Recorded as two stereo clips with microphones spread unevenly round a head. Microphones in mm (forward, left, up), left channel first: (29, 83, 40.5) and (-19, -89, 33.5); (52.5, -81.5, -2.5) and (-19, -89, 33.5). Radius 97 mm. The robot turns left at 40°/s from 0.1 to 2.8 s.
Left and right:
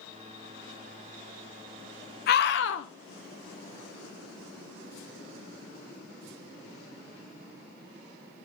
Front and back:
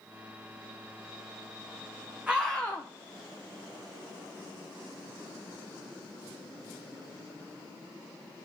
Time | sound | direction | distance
2.3 | a scream | 115° left | 0.5 m